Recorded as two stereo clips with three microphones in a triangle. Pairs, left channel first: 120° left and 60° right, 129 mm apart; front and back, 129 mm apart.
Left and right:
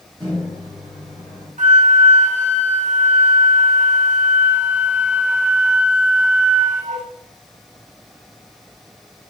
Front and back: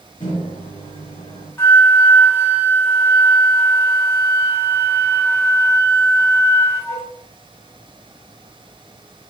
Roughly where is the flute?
Right.